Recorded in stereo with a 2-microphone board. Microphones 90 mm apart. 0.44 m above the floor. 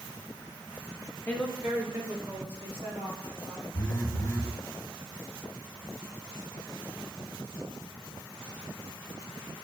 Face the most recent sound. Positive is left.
turn(degrees=40)  # may be behind; listen again after turning